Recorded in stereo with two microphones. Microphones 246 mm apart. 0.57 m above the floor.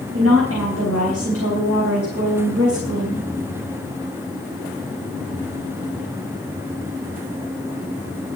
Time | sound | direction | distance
0.1 | a woman speaking | 70° right (ahead or behind) | 3.5 m